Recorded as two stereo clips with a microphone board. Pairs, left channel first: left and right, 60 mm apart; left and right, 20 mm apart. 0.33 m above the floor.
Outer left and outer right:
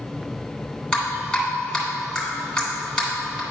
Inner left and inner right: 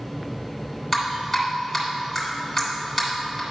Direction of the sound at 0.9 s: 15° left (ahead or behind).